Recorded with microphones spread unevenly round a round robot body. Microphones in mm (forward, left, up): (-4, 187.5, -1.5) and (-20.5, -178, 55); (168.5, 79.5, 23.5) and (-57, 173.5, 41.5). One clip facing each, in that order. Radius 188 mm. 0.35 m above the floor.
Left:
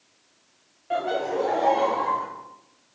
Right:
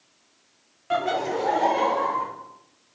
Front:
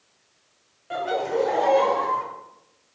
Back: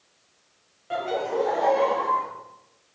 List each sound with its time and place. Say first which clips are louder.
0.9 s laughter: even, front 2 dB; 100° right, 0.9 m; by 2.2 s 5° right, 1.5 m